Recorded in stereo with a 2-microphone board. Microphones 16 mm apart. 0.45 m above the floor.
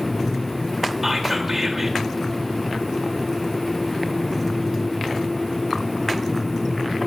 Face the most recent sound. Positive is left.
turn(degrees=-20)  # may be behind; listen again after turning